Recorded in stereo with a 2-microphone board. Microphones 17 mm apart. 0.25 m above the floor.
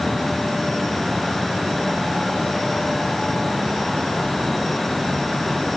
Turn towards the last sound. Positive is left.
No sound to turn to.